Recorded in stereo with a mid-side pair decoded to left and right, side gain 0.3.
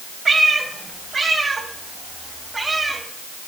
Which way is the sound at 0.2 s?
70° right.